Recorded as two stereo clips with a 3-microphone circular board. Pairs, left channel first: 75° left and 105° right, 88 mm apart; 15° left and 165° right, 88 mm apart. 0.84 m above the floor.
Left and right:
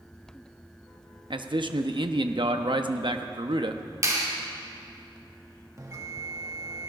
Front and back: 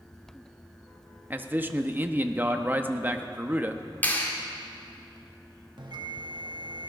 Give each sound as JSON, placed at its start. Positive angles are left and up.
{"t": 1.3, "sound": "a man speaking", "azimuth_deg": -100, "distance_m": 0.9}
{"t": 4.0, "sound": "a clap", "azimuth_deg": -55, "distance_m": 2.0}
{"t": 5.8, "sound": "a bell", "azimuth_deg": -150, "distance_m": 1.4}